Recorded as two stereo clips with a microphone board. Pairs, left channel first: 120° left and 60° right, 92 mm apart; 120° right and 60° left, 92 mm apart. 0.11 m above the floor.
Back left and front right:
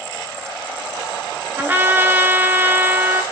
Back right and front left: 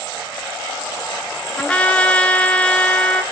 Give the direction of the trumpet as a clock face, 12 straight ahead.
2 o'clock.